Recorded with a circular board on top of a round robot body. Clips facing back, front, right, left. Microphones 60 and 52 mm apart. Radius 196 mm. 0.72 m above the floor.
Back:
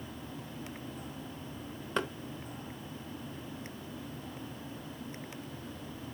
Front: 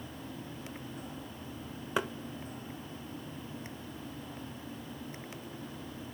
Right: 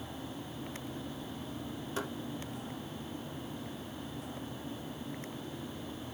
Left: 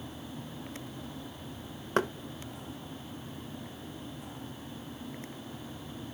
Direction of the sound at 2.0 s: 80° left.